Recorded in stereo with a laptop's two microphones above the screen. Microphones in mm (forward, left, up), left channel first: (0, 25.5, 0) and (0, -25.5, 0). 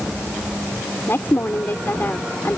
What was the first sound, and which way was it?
A woman speaking, 45° left (ahead or behind).